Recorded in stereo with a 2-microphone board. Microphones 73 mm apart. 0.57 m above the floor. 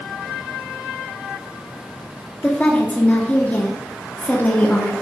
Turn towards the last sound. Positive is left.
turn(degrees=20)  # may be behind; listen again after turning